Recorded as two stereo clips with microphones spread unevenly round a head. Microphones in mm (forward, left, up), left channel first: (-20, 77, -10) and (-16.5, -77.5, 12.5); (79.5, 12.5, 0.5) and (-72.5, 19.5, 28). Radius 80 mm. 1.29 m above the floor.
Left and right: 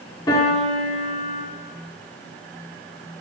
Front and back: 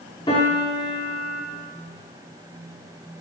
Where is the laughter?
No laughter in this recording.